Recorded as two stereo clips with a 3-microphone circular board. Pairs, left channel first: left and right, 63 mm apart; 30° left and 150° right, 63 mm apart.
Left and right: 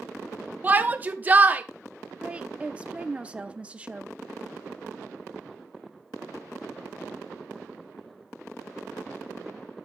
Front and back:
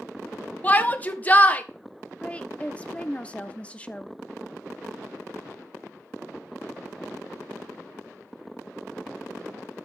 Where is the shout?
30° right, 0.9 m.